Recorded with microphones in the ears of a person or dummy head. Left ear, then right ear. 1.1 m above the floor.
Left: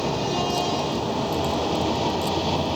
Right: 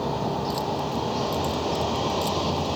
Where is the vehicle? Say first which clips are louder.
Left 3 dB; 5° right (ahead or behind); by 2.8 s 10° right (ahead or behind).